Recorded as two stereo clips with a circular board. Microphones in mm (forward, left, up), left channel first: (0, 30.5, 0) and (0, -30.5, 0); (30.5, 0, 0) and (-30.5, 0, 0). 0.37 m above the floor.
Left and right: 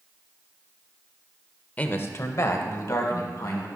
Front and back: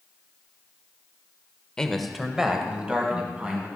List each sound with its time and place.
1.8 s a man speaking: 60° left, 0.8 m; by 3.7 s 115° left, 2.5 m